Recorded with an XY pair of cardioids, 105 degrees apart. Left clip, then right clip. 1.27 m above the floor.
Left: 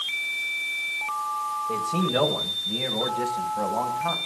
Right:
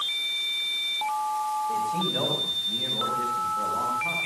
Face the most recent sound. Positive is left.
turn(degrees=75)